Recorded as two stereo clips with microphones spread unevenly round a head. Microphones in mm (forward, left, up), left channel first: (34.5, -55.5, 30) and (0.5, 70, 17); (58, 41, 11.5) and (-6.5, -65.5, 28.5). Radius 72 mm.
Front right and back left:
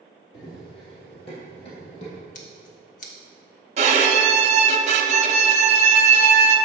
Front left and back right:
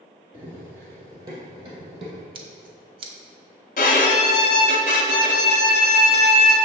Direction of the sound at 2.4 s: 90° right.